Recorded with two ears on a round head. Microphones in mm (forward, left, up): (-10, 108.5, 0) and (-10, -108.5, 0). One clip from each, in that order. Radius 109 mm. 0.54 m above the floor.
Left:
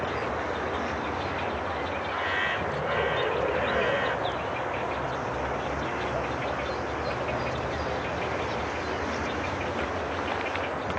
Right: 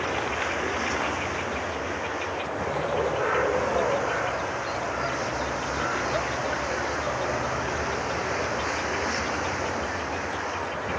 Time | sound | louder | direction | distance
0.0 | a vehicle | right 2 dB | 80° right | ?